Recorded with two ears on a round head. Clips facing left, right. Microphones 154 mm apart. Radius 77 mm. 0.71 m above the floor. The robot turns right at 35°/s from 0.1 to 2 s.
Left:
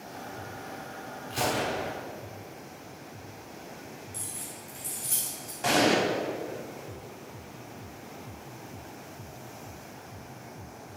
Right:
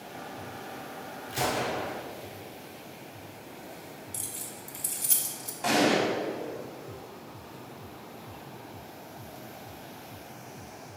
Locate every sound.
1.3 s a gunshot: 15° right (ahead or behind), 1.2 m; by 1.9 s 5° left (ahead or behind), 1.2 m
4.1 s keys jangling: 50° right (ahead or behind), 1.4 m
5.6 s an explosion: 5° left (ahead or behind), 2 m